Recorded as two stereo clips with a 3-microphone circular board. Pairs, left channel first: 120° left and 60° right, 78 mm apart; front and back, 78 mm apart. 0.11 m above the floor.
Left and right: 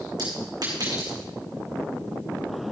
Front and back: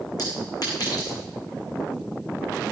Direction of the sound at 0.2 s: 35° right.